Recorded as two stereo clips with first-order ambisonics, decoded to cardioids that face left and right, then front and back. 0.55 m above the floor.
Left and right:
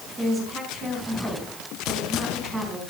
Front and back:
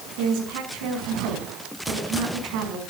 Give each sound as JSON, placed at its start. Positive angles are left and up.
{"t": 0.2, "sound": "a woman speaking", "azimuth_deg": -175, "distance_m": 4.0}